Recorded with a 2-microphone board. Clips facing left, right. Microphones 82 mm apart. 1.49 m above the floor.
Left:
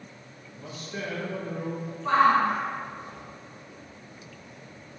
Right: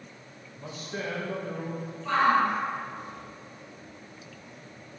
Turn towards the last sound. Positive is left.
turn(degrees=30)  # may be behind; listen again after turning